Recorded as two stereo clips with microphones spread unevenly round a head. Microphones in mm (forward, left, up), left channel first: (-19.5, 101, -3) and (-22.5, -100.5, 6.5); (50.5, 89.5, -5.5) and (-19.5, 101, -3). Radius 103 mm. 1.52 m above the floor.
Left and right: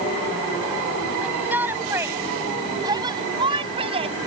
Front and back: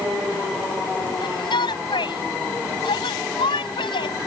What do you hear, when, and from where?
1.2 s a shout: 5° right; by 4.2 s 25° right